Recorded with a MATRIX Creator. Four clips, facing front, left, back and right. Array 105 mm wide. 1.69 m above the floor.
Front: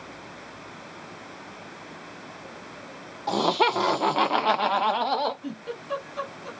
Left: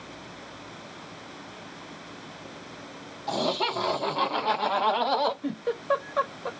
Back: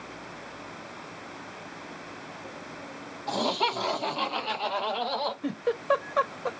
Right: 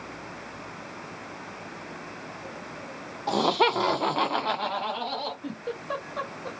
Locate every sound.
3.3 s laughter: 50° right, 2 m; by 5.3 s 55° left, 1.2 m
5.4 s a giggle: 160° left, 1.0 m